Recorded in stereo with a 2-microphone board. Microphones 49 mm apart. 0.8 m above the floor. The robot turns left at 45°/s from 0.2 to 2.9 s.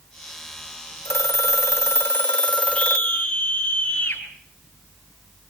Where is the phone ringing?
105° left, 0.9 m; by 3.2 s 20° left, 0.9 m.